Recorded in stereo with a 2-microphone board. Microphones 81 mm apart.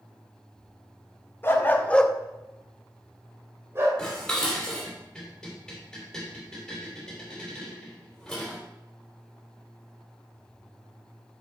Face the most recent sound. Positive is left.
turn(degrees=5)  # may be behind; listen again after turning